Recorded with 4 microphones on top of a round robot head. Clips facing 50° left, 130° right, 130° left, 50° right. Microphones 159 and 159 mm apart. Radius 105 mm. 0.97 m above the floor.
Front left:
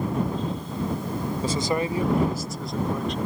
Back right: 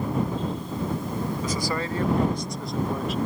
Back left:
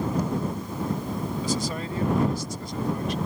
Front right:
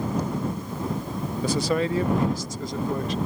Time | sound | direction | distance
1.4 | a man speaking | 10° right | ?